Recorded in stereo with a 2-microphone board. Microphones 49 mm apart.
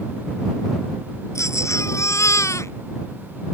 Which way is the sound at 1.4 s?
70° left (ahead or behind).